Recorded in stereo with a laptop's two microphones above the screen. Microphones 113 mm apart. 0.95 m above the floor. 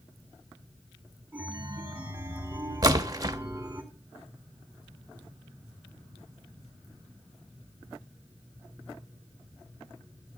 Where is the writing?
I don't hear writing.